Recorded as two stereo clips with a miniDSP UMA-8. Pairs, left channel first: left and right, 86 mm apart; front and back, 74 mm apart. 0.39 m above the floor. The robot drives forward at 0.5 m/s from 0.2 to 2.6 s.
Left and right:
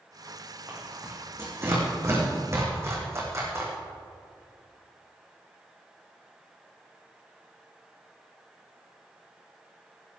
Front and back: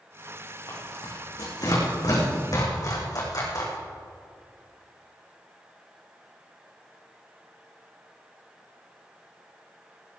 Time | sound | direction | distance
0.7 | tearing paper | 30° right | 6 m